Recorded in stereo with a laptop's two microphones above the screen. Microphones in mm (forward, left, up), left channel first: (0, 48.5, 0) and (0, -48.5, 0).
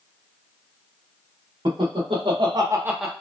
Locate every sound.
1.6 s laughter: 65° right (ahead or behind), 1.2 m; by 3.1 s 5° left (ahead or behind), 0.5 m